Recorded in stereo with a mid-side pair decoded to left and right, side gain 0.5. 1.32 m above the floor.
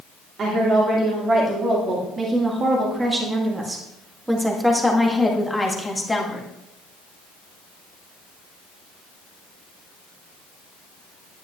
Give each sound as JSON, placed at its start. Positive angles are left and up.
{"t": 0.4, "sound": "a woman speaking", "azimuth_deg": -55, "distance_m": 3.0}